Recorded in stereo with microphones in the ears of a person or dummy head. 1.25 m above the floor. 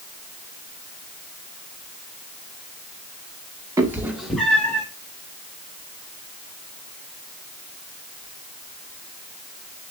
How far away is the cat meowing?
About 1.2 m.